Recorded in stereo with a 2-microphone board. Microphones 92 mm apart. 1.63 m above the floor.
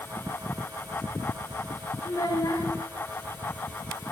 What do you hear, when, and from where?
2.0 s a child speaking: 45° left (ahead or behind), 1.3 m